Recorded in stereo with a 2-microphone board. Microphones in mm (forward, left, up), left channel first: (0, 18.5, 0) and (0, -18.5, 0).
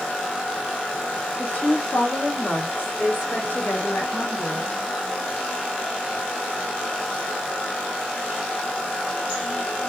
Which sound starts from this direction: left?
A woman speaking, at 1.4 s.